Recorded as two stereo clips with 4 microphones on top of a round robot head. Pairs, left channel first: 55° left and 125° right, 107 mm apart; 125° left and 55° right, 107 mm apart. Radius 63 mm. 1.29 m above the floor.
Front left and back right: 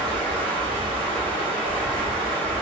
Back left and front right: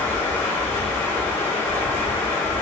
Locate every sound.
0.0 s running water: 165° right, 2.5 m